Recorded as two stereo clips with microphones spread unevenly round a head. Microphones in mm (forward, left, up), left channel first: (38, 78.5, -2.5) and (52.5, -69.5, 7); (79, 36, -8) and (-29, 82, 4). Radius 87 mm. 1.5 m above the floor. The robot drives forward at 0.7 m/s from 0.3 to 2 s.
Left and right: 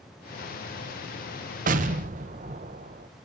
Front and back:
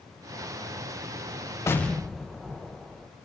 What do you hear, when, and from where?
1.7 s an explosion: 95° right, 0.7 m; by 3.1 s 120° right, 0.8 m